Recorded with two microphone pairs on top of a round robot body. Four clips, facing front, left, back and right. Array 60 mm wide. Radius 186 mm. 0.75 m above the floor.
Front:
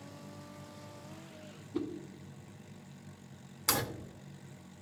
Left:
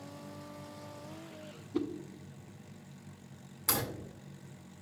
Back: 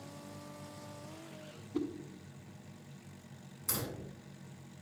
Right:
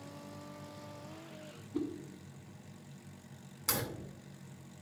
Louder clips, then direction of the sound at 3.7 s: Left 2 dB, front 8 dB; 5° left.